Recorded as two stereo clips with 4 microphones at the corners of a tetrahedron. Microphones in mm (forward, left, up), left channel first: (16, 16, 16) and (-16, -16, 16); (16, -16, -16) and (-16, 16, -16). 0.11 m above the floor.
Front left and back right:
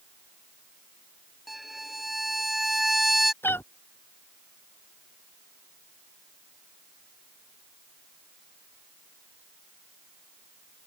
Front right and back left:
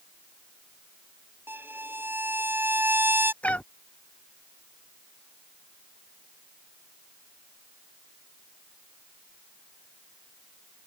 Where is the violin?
140° left.